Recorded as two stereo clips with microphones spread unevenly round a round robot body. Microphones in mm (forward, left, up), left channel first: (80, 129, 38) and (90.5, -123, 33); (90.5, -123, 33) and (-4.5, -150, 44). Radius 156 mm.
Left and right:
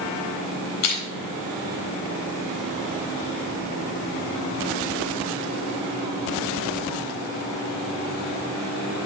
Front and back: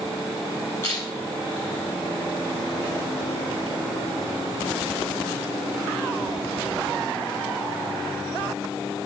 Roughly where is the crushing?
Left.